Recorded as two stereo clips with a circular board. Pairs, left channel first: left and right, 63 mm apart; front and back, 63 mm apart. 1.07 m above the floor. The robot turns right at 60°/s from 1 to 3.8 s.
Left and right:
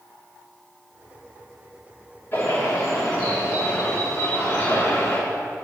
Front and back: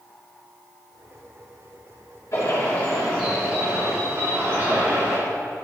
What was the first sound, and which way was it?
A bird, 35° left.